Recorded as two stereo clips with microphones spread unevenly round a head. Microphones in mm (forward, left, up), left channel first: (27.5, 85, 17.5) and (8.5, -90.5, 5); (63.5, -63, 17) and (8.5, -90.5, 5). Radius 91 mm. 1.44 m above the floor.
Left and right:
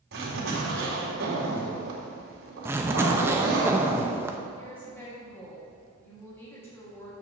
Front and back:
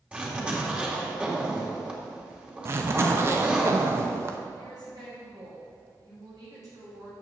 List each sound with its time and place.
0.1 s a zipper: 80° right, 2.5 m
2.6 s a zipper: 170° right, 0.6 m
4.6 s a woman speaking: 165° left, 3 m